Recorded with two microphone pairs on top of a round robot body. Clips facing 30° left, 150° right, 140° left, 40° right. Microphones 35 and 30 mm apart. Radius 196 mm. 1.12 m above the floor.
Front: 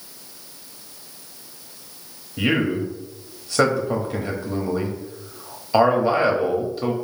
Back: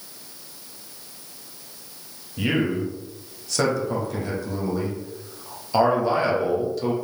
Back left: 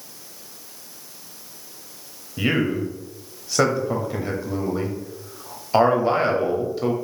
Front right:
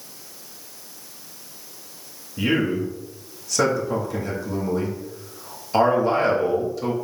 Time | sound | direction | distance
2.4 | a man speaking | 95° left | 0.9 m